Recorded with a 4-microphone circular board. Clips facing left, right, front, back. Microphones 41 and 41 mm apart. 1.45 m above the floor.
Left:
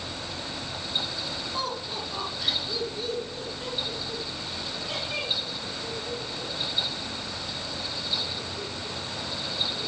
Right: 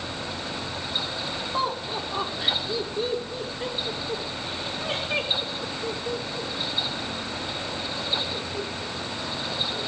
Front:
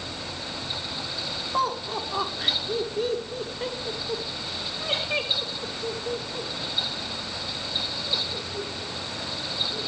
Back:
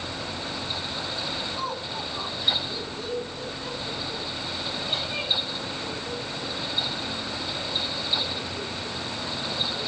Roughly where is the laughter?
Ahead right.